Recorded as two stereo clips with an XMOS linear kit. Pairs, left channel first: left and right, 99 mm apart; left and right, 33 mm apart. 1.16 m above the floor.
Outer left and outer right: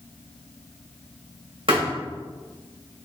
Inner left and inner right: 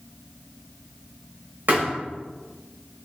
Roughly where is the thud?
Right.